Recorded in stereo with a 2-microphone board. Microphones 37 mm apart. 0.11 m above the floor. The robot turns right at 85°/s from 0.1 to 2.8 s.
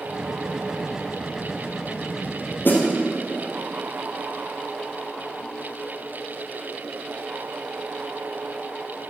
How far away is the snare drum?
About 2.5 m.